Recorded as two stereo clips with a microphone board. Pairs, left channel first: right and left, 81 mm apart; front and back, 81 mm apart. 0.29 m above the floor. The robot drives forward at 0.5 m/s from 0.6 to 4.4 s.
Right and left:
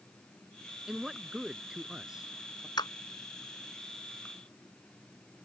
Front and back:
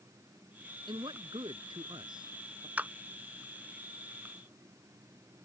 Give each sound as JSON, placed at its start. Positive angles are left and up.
{"t": 0.9, "sound": "a man speaking", "azimuth_deg": 170}
{"t": 2.8, "sound": "a clap", "azimuth_deg": -110}